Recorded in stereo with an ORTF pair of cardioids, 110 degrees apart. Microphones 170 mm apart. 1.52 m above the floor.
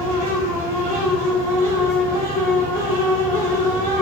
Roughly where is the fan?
Right.